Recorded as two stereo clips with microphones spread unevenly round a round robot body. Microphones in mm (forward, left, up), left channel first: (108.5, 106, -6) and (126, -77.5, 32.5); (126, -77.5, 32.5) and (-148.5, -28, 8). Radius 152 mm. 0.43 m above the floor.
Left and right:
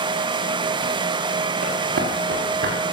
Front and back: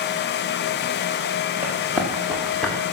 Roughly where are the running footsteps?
Right.